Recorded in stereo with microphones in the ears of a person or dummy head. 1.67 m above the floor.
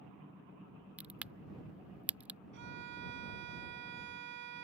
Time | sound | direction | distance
1.0 | a crack | 5° right (ahead or behind) | ?
2.5 | a violin | 60° right (ahead or behind) | ?